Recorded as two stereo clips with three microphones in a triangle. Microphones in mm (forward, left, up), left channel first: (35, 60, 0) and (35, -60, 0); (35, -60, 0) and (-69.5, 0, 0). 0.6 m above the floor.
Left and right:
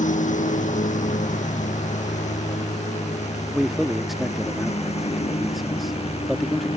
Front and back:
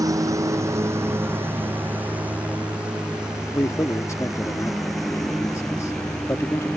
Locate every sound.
0.0 s a lawn mower: 85° left; by 6.8 s 55° left
3.5 s a man speaking: straight ahead